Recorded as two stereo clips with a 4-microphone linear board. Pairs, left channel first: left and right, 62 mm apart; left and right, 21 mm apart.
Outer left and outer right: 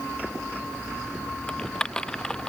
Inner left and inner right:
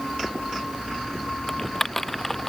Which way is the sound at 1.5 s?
10° left (ahead or behind).